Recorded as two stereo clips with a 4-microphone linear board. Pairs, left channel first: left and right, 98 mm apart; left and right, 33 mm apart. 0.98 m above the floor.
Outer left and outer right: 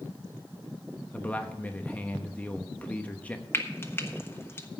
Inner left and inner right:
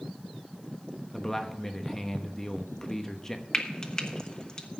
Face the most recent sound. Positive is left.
turn(degrees=25)  # may be behind; listen again after turning